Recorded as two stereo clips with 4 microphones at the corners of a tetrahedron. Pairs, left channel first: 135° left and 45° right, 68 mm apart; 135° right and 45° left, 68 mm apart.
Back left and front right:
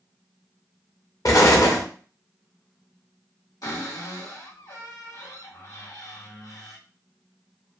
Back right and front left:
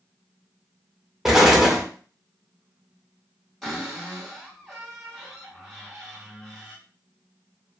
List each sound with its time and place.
1.2 s an explosion: 130° left, 0.6 m
3.6 s a cupboard door: 140° left, 1.8 m